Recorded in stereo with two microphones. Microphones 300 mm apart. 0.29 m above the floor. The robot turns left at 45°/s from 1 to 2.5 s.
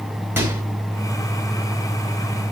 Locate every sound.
0.4 s a microwave: 5° right (ahead or behind), 1.5 m